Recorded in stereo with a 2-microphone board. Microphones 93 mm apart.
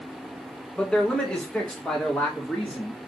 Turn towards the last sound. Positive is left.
turn(degrees=10)  # may be behind; listen again after turning